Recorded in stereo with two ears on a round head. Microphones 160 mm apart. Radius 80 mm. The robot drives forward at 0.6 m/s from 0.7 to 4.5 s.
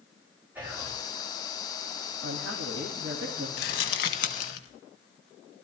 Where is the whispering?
10° right (ahead or behind), 3 m.